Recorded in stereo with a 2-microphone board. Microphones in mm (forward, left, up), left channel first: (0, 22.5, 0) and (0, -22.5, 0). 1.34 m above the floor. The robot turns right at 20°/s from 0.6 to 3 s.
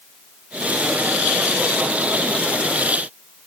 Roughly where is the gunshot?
No gunshot in this recording.